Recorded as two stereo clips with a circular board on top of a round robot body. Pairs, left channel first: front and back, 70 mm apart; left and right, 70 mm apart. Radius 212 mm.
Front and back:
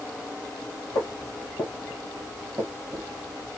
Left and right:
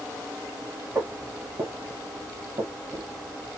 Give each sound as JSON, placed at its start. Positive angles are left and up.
{"t": 0.9, "sound": "footsteps", "azimuth_deg": -25, "distance_m": 1.1}